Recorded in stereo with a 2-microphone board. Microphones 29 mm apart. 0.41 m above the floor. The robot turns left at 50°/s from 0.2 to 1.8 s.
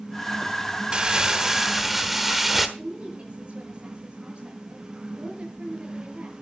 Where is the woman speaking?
40° right (ahead or behind), 7 m.